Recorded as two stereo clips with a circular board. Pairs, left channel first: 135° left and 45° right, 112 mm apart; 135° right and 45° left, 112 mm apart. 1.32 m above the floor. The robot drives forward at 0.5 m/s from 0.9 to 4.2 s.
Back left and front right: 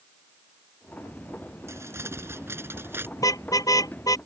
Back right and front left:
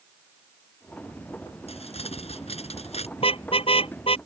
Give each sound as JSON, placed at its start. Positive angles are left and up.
{"t": 1.7, "sound": "crumpling", "azimuth_deg": -110}
{"t": 3.2, "sound": "a car horn", "azimuth_deg": -165}